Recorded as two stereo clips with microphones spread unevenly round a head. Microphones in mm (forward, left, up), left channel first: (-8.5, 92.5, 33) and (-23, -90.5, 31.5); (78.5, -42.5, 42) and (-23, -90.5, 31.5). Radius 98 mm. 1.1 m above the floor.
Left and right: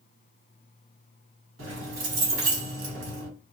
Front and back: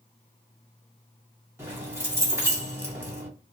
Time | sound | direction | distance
1.6 | keys jangling | 85° right | 1.4 m